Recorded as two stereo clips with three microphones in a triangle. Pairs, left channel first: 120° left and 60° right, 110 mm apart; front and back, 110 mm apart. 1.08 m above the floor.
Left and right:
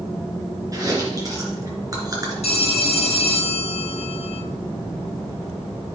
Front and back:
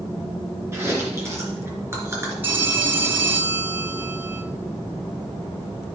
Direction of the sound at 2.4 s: 110° left.